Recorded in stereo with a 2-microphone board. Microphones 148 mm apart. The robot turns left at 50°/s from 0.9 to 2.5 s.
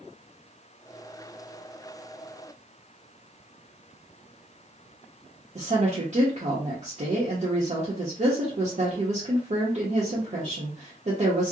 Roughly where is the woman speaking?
Right.